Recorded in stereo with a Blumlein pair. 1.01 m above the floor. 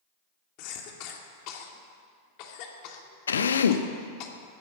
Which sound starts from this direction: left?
A drill, at 3.3 s.